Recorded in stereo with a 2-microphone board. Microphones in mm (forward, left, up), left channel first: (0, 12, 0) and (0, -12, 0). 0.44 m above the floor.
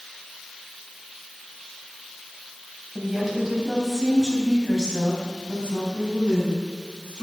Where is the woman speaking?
5° right (ahead or behind), 3 m; by 7.2 s 50° right (ahead or behind), 4.5 m.